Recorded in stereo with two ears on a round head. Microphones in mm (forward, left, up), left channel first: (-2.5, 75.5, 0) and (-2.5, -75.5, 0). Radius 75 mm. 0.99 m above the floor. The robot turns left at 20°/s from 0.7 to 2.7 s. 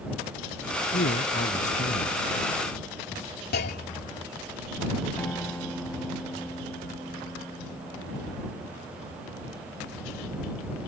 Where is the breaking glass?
I don't hear breaking glass.